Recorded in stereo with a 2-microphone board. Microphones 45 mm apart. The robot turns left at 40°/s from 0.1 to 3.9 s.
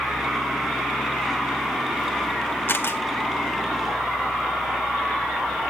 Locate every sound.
2.7 s a camera shutter: 55° left (ahead or behind), 1.4 m; by 3.0 s 70° left (ahead or behind), 1.4 m